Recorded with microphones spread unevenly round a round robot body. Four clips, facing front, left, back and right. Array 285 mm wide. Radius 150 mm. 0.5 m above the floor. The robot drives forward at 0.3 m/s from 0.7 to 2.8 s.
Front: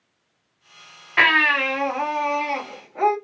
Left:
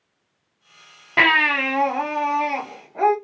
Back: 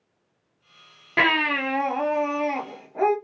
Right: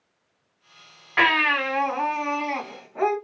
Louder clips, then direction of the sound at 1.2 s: Left 2 dB, front 3 dB; 140° left.